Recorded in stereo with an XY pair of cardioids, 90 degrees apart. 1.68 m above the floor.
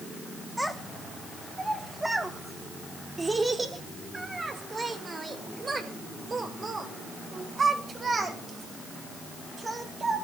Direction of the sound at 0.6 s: 5° right.